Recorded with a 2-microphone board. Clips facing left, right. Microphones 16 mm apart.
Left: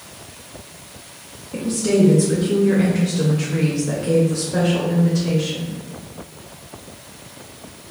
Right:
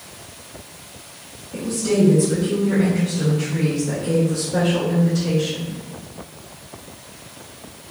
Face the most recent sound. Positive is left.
turn(degrees=-5)  # may be behind; listen again after turning